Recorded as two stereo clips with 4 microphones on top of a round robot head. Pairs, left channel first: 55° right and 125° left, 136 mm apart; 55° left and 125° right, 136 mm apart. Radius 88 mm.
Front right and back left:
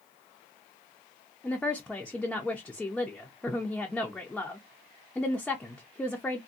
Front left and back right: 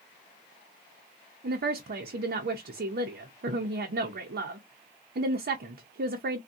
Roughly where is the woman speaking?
Behind right.